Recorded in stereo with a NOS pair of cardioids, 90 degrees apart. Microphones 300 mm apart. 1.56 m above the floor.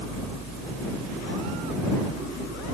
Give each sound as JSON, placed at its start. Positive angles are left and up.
{"t": 0.0, "sound": "a fan", "azimuth_deg": -65}